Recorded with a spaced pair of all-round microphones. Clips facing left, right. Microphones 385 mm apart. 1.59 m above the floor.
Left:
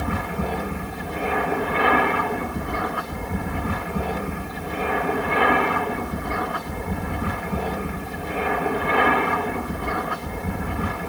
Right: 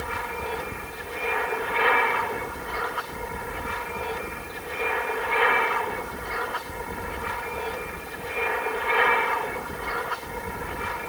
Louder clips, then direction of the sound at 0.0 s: Left 7 dB; 65° left (ahead or behind).